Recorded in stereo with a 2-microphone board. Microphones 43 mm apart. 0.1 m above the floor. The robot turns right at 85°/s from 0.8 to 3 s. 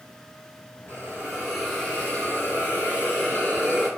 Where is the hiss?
70° right, 1.6 m; by 3.9 s 110° left, 1.6 m.